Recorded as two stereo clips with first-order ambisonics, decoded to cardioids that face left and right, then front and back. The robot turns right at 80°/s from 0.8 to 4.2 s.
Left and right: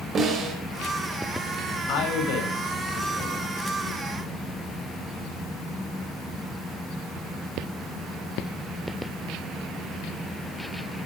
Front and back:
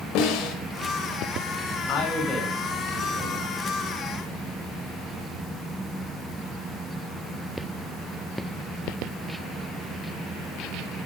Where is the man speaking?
40° left, 9 m; by 3.6 s 175° left, 9 m.